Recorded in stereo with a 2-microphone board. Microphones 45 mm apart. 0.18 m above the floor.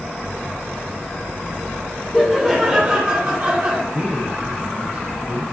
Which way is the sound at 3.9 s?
15° right (ahead or behind).